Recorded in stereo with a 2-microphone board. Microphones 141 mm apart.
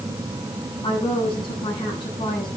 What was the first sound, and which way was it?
A woman speaking, 35° left (ahead or behind).